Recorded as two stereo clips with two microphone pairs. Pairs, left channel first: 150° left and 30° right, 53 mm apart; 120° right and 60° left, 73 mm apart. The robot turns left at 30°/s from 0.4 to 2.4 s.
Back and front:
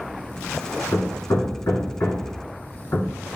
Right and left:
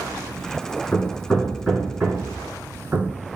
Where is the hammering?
170° left, 2.5 m; by 3.1 s 125° left, 2.5 m.